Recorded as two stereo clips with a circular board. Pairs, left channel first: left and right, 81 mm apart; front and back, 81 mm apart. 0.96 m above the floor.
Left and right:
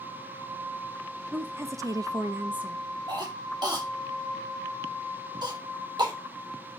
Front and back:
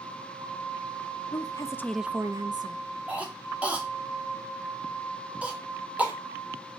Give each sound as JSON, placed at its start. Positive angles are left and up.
{"t": 1.3, "sound": "a woman speaking", "azimuth_deg": -25, "distance_m": 0.9}
{"t": 3.1, "sound": "a cough", "azimuth_deg": -110, "distance_m": 2.5}